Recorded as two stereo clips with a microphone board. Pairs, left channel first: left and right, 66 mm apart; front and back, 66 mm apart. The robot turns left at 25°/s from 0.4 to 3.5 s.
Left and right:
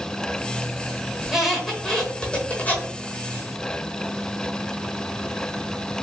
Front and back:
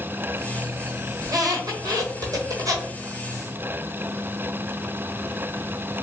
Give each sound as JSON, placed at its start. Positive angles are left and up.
{"t": 1.2, "sound": "a squeak", "azimuth_deg": -170, "distance_m": 0.9}